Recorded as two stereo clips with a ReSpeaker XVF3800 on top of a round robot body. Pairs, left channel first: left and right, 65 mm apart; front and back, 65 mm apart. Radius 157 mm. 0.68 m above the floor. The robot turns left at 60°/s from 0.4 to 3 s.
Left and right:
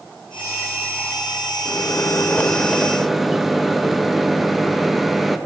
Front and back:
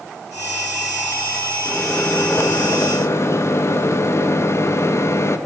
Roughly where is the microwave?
Left.